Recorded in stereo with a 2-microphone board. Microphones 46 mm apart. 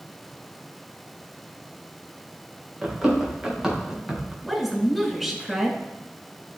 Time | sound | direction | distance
2.8 | running footsteps | 15° right (ahead or behind) | 3.5 m
4.4 | a woman speaking | 5° right (ahead or behind) | 2.0 m